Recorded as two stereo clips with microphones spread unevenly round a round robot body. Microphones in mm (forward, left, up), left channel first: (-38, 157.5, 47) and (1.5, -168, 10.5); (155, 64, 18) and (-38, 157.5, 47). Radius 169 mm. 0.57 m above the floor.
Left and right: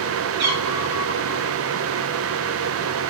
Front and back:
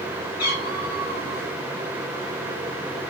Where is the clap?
I don't hear a clap.